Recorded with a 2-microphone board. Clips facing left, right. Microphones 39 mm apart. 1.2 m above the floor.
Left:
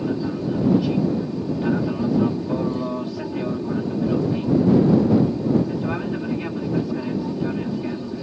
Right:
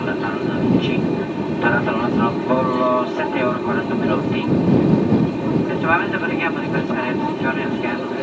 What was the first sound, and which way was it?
An aircraft, 50° right (ahead or behind).